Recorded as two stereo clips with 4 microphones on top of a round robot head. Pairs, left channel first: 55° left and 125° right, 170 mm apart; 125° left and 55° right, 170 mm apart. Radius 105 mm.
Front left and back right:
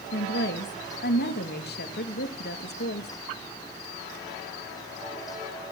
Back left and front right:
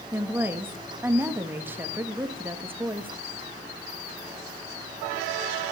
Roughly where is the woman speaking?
Ahead left.